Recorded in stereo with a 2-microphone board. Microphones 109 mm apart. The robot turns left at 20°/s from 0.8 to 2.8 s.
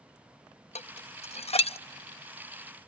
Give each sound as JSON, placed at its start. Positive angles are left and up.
{"t": 0.8, "sound": "dishes clattering", "side_deg": 85, "distance_m": 0.6}